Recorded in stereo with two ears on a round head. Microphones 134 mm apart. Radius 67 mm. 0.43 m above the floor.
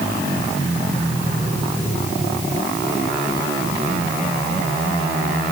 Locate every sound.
Only background noise.